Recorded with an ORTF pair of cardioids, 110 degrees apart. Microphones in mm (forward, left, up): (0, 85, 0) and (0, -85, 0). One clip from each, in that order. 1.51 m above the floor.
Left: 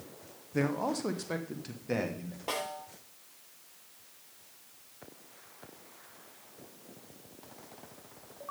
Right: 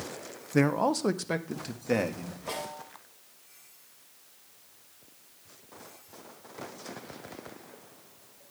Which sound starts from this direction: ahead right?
A man speaking, at 0.5 s.